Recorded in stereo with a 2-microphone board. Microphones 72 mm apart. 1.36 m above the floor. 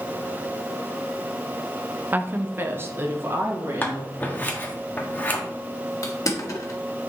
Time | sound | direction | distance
2.1 | a woman speaking | 25° right (ahead or behind) | 0.6 m
3.8 | scissors | 25° left (ahead or behind) | 1.4 m
6.0 | crushing | 50° left (ahead or behind) | 1.6 m